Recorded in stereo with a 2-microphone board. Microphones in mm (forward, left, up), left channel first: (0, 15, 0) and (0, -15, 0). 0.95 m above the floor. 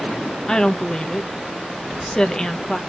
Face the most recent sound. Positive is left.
turn(degrees=25)  # may be behind; listen again after turning